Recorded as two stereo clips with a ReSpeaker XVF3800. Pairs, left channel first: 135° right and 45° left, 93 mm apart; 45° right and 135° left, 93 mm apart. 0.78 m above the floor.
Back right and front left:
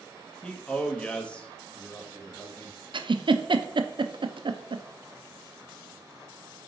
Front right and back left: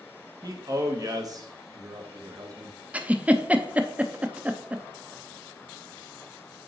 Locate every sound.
0.4 s a man speaking: 150° left, 1.1 m
2.9 s a giggle: 60° left, 0.5 m